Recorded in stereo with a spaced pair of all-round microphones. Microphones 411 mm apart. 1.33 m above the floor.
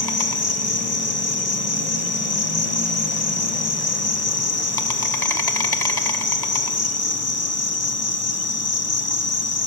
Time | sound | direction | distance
0.0 | an insect | 60° left (ahead or behind) | 1.1 m